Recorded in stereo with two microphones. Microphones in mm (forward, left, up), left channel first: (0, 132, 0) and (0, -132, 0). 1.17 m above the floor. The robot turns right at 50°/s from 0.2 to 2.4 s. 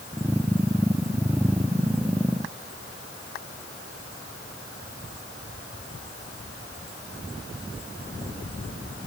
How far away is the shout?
I don't hear a shout.